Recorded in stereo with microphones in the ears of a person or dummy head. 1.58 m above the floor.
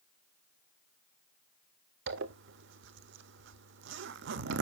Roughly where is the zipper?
Right.